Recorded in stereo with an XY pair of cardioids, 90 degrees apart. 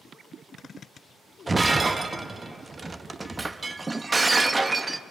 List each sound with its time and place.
1.5 s breaking glass: 25° right, 0.8 m